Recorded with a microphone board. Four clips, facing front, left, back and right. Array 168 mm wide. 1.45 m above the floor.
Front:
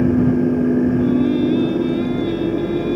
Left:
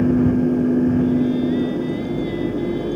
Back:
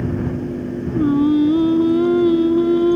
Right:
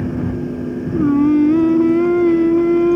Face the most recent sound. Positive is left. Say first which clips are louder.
# right 5 dB, back 1 dB
turn(degrees=-120)